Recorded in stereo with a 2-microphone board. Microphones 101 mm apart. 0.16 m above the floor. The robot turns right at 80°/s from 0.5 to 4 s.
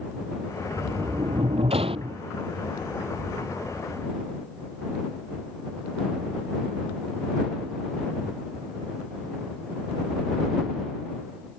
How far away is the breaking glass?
No breaking glass in this recording.